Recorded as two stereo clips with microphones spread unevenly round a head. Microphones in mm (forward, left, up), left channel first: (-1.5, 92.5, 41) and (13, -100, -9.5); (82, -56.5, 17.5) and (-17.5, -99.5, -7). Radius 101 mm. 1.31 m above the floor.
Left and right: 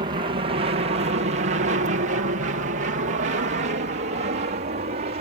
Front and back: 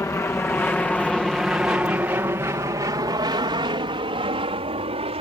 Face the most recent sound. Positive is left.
turn(degrees=-135)